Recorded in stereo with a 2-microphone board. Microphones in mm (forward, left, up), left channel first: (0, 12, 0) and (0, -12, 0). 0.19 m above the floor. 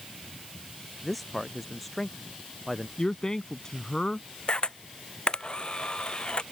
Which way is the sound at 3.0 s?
30° left (ahead or behind).